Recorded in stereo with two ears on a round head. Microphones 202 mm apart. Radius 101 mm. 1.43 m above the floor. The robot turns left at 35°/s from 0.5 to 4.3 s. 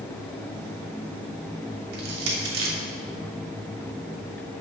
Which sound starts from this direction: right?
Crushing, at 1.9 s.